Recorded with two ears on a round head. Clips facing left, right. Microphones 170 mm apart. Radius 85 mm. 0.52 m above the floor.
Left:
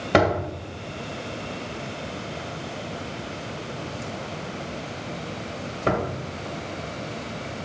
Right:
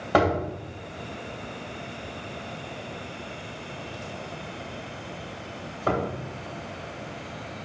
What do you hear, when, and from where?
0.1 s a door slam: 30° left (ahead or behind), 1.9 m